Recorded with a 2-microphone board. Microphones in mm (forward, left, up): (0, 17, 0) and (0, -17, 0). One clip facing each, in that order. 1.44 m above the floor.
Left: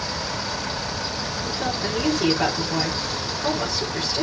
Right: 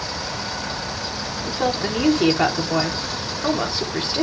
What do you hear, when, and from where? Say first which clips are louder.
1.4 s a woman speaking: right 5 dB; 40° right (ahead or behind), 4 m